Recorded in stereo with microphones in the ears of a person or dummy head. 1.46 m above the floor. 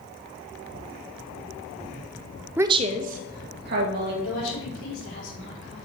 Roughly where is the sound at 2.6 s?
Centre.